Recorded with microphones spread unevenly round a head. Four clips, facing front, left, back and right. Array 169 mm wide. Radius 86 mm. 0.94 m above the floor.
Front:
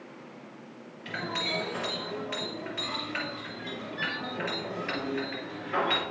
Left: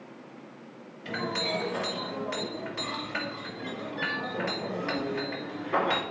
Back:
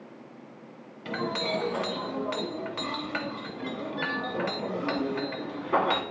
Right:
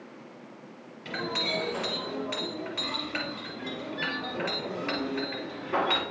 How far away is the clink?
About 1.4 m.